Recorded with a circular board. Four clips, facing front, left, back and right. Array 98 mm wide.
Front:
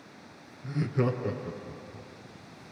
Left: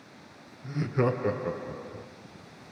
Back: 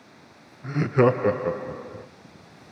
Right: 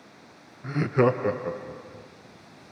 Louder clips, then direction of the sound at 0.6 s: Right 5 dB, back 9 dB; 130° right.